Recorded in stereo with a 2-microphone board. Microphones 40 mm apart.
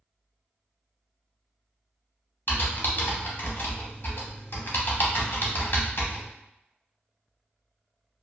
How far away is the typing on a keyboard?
About 0.7 m.